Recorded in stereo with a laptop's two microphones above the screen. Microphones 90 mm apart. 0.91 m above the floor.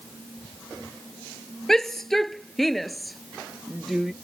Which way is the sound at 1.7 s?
5° left (ahead or behind).